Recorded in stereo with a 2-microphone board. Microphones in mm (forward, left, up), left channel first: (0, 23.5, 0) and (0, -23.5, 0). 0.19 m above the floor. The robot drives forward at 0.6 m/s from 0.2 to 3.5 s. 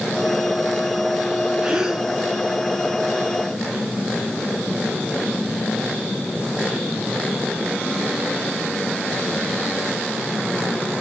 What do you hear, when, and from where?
1.6 s a gasp: 15° right (ahead or behind), 1.7 m; by 2.1 s 10° right (ahead or behind), 1.9 m